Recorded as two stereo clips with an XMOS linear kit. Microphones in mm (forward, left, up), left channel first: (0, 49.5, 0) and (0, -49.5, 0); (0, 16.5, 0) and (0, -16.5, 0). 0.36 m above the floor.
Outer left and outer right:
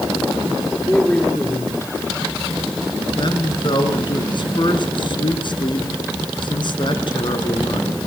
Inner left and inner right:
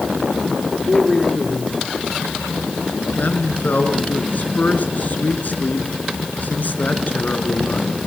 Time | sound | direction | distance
0.9 | a man speaking | 15° left (ahead or behind) | 8 m
3.2 | a man speaking | 55° left (ahead or behind) | 4 m